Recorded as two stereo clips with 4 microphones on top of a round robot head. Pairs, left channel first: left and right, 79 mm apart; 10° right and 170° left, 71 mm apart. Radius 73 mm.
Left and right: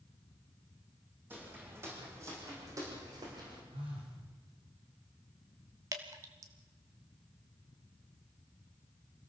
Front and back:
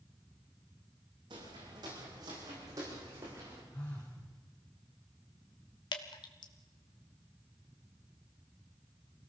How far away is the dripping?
About 1.6 m.